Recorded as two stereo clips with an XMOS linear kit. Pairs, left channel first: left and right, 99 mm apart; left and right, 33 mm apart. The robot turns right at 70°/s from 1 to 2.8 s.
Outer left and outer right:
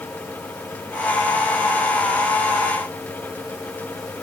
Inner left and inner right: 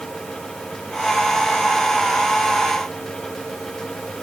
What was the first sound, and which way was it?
Only background noise.